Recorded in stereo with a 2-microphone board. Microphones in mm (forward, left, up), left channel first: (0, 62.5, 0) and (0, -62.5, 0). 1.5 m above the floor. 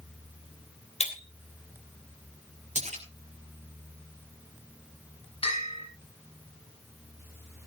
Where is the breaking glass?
60° left (ahead or behind), 3 m.